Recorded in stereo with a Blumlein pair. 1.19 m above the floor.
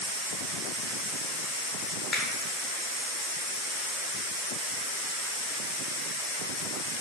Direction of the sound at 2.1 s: 20° left.